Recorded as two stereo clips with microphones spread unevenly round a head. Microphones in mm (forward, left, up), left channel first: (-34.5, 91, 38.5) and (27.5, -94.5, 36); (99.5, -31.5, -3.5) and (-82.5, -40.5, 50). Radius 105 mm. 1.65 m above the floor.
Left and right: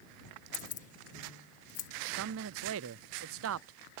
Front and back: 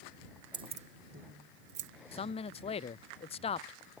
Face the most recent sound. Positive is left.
turn(degrees=-55)